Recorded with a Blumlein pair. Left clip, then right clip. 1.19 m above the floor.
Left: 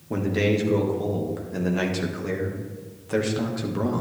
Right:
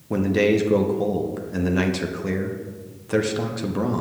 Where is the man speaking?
10° right, 0.8 m.